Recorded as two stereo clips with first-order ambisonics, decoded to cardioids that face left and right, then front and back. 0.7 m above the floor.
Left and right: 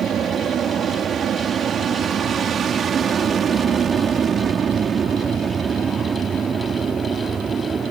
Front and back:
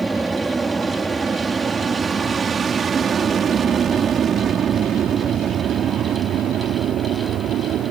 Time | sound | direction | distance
0.0 | an aircraft | 105° right | ?